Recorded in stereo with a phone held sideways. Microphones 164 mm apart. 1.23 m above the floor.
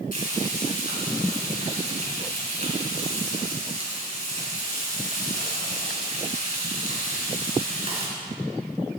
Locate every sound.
0.1 s frying: 60° left (ahead or behind), 3.5 m